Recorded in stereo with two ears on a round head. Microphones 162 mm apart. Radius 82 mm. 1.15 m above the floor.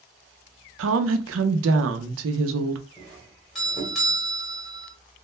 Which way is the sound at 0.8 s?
85° right.